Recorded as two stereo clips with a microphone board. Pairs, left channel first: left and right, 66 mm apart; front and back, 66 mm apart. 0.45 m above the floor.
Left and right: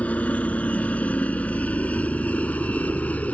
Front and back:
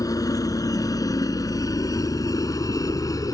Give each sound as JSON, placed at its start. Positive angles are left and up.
{"t": 0.0, "sound": "a helicopter", "azimuth_deg": 20}